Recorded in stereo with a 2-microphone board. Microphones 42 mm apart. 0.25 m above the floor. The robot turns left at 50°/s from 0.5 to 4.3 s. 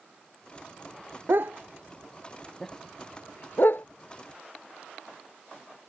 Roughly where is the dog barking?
Right.